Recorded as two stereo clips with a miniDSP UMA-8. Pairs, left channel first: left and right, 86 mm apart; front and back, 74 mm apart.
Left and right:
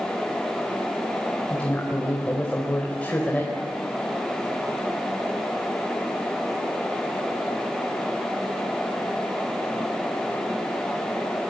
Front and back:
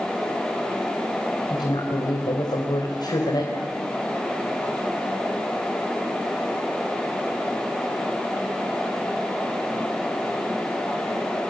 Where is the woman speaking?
15° left, 4 m.